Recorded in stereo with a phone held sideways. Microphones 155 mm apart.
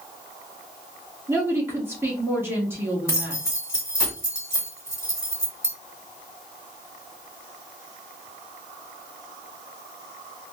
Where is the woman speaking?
15° right (ahead or behind), 1.6 m.